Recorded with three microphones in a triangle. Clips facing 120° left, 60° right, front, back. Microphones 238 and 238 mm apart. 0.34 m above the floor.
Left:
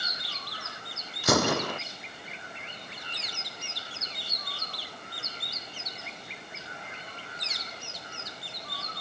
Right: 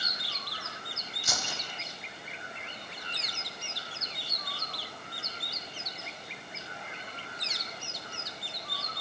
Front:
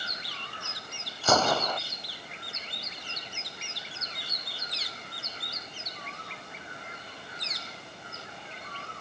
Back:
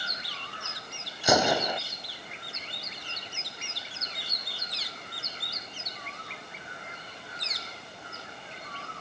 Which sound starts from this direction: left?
A gunshot, at 1.2 s.